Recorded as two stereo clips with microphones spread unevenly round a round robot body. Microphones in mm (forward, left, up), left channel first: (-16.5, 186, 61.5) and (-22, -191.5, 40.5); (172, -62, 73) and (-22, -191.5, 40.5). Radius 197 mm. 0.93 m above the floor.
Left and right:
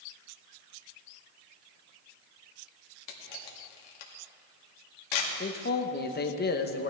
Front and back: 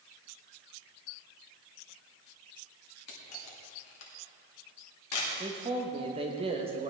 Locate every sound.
3.1 s a camera shutter: 70° left, 2 m
5.4 s a man speaking: 155° left, 1.0 m